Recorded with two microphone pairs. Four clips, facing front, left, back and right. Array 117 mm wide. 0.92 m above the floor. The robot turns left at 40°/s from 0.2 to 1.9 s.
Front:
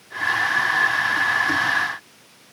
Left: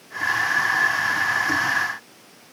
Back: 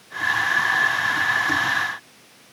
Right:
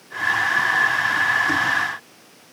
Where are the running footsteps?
I don't hear running footsteps.